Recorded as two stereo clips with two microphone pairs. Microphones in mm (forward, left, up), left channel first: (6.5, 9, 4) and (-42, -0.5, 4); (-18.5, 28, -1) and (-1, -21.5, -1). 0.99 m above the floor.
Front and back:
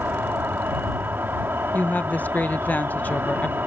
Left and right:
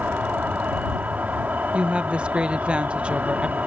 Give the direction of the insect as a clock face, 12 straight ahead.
4 o'clock.